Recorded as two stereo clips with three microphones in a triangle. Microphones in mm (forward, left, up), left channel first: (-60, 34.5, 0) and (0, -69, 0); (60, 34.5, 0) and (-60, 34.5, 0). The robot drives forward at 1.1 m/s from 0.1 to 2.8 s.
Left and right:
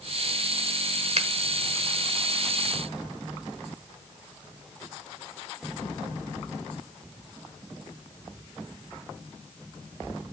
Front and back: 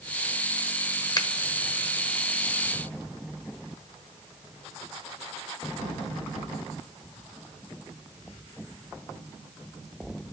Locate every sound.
1.2 s a finger snap: 50° right, 1.2 m; by 1.3 s 55° right, 1.2 m